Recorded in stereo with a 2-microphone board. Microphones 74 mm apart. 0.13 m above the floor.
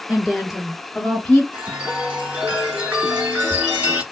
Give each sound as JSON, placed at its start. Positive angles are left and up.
{"t": 0.1, "sound": "a woman speaking", "side_deg": -10, "distance_m": 1.9}
{"t": 1.5, "sound": "a chime", "side_deg": -15, "distance_m": 1.7}